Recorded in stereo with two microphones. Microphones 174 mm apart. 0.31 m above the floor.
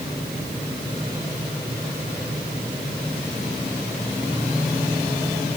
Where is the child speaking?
No child speaking in this recording.